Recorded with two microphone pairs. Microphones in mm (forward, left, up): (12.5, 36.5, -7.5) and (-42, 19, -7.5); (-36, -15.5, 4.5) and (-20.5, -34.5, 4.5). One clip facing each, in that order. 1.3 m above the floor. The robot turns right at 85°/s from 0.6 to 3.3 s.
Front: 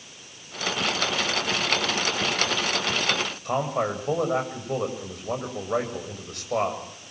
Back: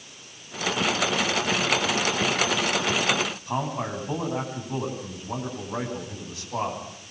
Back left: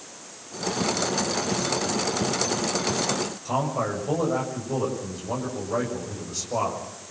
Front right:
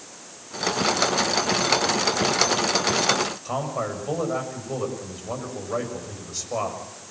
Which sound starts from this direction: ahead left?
A man speaking, at 3.5 s.